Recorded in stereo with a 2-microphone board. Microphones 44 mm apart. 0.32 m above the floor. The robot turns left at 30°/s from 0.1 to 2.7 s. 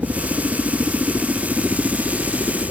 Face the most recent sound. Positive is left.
turn(degrees=170)